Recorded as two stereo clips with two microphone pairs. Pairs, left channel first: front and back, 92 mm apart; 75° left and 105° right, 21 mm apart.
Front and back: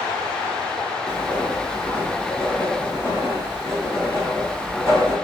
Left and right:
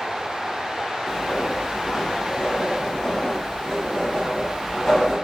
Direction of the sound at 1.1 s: 135° left.